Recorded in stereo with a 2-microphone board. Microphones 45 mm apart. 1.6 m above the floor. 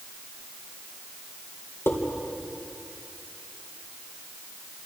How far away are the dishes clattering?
About 4 m.